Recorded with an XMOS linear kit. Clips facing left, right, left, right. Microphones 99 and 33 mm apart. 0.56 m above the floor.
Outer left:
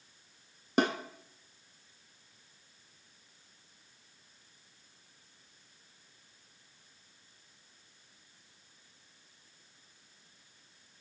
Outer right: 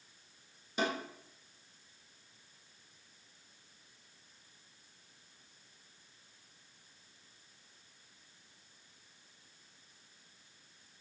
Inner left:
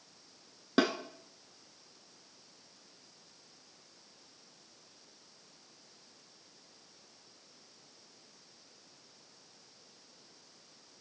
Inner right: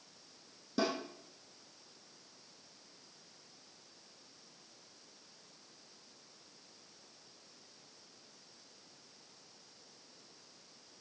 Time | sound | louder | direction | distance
0.8 | a snare drum | outer left 6 dB, inner left 5 dB | 70° left (ahead or behind) | 1.1 m